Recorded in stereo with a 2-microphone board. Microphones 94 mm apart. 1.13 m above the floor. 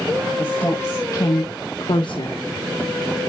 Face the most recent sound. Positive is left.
turn(degrees=70)  # may be behind; listen again after turning